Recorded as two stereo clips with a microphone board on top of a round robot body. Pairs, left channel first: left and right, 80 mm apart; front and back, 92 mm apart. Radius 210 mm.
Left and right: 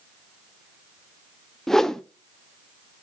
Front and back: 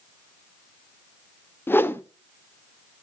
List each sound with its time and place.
1.7 s a whoosh: 15° left, 0.9 m